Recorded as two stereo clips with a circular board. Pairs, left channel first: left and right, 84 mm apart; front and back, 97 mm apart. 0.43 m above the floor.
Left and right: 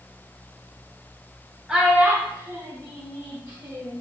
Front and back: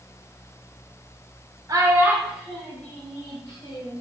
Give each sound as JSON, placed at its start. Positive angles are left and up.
{"t": 1.7, "sound": "a child speaking", "azimuth_deg": -170, "distance_m": 0.8}